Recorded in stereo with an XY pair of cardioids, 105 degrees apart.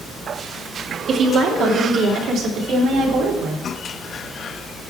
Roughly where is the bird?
I don't hear a bird.